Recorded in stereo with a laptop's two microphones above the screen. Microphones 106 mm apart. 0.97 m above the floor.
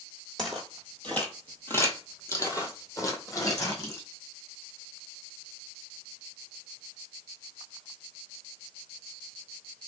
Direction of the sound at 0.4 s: 5° left (ahead or behind).